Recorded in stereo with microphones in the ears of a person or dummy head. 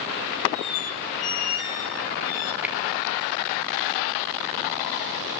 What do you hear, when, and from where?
0.5 s a squeak: 30° left (ahead or behind), 2 m
2.6 s a finger snap: 5° right (ahead or behind), 1.1 m